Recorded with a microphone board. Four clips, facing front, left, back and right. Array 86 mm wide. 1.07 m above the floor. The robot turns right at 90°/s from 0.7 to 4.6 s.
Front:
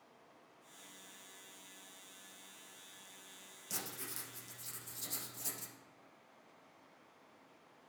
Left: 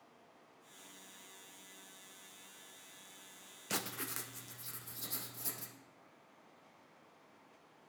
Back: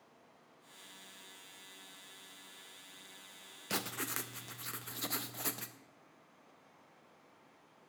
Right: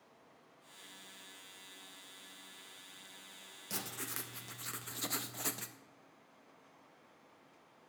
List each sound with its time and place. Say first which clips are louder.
3.7 s writing: left 3 dB, back 9 dB; 140° left, 0.5 m; by 5.8 s 135° right, 0.5 m